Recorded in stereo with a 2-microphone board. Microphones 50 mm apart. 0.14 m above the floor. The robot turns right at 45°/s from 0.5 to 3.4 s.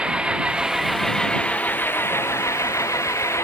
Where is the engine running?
20° right; by 3.4 s 110° left.